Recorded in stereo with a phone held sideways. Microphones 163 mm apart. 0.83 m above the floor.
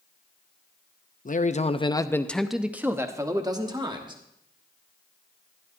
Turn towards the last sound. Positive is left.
turn(degrees=-30)  # may be behind; listen again after turning